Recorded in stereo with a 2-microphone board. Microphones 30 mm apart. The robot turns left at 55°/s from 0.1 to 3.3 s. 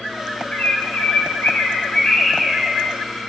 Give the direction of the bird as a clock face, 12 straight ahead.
8 o'clock.